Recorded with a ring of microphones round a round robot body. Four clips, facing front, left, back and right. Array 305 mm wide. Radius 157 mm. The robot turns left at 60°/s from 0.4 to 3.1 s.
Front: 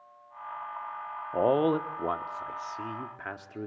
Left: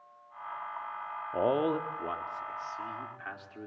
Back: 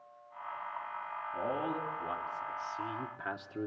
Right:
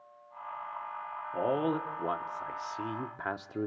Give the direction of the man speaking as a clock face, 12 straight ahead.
11 o'clock.